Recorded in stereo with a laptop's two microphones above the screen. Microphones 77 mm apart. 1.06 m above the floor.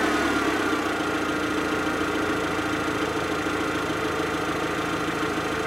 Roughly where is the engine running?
Centre.